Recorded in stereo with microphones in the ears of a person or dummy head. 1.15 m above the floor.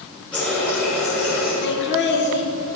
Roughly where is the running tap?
Centre.